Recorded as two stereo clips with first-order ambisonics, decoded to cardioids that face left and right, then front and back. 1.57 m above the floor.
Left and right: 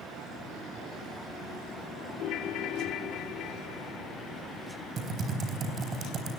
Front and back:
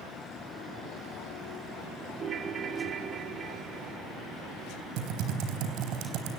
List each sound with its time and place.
2.2 s a ringtone: 125° left, 0.9 m
5.0 s typing on a keyboard: 155° right, 4 m